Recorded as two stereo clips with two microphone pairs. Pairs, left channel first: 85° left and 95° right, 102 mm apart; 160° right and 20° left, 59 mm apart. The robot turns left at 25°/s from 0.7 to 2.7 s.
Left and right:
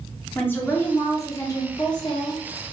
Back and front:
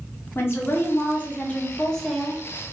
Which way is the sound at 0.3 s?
155° left.